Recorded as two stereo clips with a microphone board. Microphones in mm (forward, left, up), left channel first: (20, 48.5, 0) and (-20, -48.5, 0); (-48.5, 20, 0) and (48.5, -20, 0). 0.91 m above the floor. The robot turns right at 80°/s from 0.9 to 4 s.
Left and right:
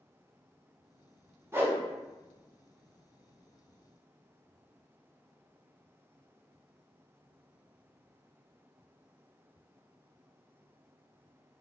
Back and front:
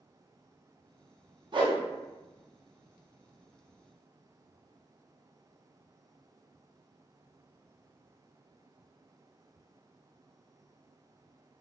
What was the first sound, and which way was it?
A whoosh, 50° right.